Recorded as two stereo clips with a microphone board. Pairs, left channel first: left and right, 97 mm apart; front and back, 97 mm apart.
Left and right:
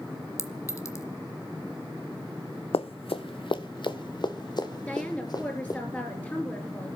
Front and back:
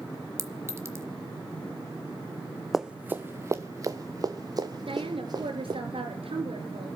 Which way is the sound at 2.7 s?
90° left.